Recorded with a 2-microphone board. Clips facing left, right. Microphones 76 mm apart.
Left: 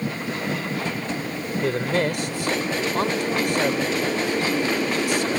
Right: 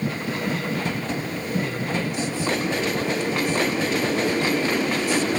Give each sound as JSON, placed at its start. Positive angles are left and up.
{"t": 1.6, "sound": "a man speaking", "side_deg": 70}